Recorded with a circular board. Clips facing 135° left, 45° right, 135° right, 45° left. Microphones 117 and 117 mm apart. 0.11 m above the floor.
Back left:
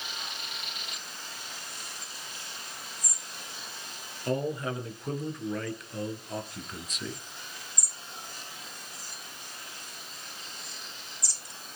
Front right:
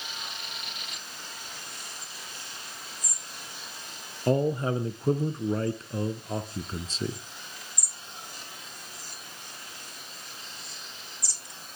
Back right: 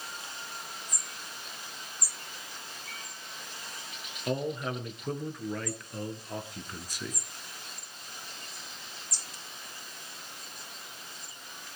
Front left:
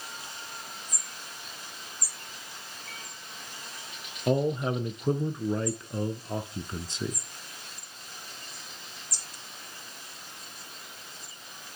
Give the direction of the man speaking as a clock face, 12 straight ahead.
12 o'clock.